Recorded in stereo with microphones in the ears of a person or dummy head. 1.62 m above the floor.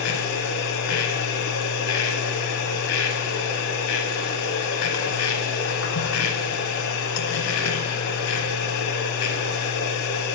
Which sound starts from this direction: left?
A machine running, at 0.0 s.